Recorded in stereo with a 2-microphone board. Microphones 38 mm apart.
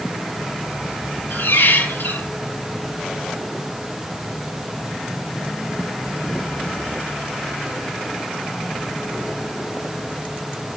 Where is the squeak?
80° left, 5 m.